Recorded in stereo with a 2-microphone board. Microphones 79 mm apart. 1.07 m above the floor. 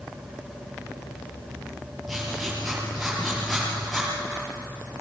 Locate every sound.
2.1 s writing: 5° right (ahead or behind), 7.5 m